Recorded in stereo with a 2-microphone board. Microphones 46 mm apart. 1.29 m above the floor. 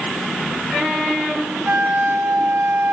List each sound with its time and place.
1.7 s a flute: 50° right (ahead or behind), 2.5 m